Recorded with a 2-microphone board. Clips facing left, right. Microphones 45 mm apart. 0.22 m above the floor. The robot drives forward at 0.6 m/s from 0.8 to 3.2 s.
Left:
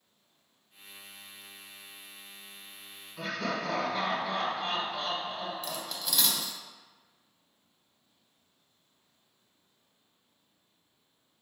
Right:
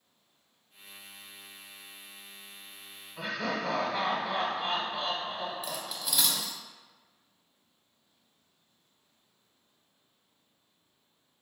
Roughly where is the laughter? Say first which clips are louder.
Even; right.